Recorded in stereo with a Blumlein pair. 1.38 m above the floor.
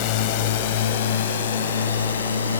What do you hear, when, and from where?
0.0 s a drone: 45° left; by 2.6 s 70° left